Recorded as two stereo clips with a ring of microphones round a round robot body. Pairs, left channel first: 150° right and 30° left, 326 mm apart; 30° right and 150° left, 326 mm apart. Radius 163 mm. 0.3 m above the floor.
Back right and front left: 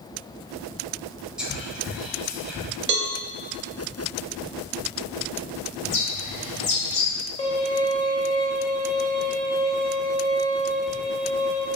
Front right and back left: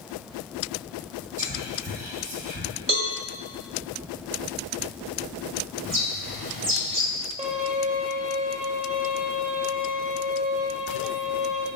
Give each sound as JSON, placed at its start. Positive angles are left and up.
{"t": 1.4, "sound": "whispering", "azimuth_deg": 115, "distance_m": 1.0}
{"t": 2.9, "sound": "a cowbell", "azimuth_deg": 80, "distance_m": 0.6}
{"t": 5.8, "sound": "a bird", "azimuth_deg": 170, "distance_m": 1.5}
{"t": 7.4, "sound": "a violin", "azimuth_deg": 170, "distance_m": 0.6}